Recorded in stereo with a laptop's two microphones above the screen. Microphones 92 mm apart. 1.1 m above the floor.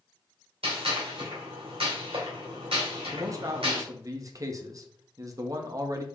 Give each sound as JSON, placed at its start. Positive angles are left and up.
{"t": 0.6, "sound": "a gunshot", "side_deg": -80, "distance_m": 2.5}
{"t": 3.1, "sound": "a man speaking", "side_deg": -40, "distance_m": 0.7}